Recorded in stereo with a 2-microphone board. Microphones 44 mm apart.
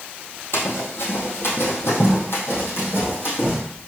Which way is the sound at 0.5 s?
65° left (ahead or behind).